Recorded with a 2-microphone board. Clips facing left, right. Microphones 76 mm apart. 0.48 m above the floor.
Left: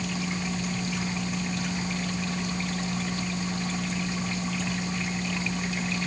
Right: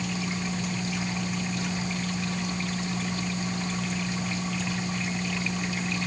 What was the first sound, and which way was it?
Only background noise.